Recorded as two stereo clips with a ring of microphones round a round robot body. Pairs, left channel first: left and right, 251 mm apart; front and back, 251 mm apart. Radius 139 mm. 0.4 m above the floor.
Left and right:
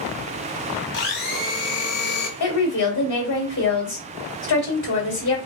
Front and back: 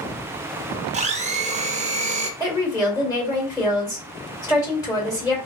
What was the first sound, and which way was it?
A blender, 125° left.